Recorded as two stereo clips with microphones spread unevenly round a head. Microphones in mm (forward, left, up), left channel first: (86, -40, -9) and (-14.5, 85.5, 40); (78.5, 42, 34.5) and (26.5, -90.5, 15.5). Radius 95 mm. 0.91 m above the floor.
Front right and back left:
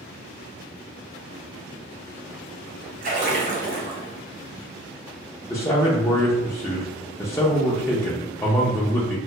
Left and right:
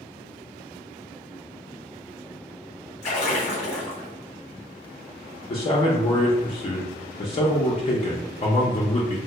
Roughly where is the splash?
Left.